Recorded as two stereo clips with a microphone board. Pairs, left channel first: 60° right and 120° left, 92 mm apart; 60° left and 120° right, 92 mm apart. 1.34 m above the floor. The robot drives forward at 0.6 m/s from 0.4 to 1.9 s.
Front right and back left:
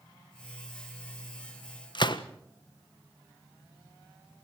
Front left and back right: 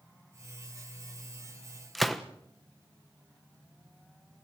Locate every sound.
1.9 s a gunshot: 30° right, 1.3 m